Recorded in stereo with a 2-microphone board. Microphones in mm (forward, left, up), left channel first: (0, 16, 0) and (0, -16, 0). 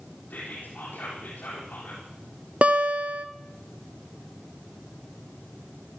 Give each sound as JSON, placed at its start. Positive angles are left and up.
{"t": 0.3, "sound": "whispering", "side_deg": 55, "distance_m": 3.5}
{"t": 2.6, "sound": "a guitar", "side_deg": -40, "distance_m": 0.9}